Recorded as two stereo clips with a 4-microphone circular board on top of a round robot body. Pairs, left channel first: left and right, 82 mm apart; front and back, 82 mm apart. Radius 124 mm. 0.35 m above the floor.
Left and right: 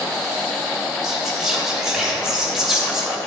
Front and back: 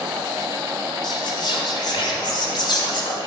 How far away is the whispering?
About 2.5 m.